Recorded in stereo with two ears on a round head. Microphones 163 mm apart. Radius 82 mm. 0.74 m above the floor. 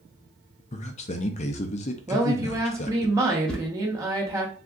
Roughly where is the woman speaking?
Centre.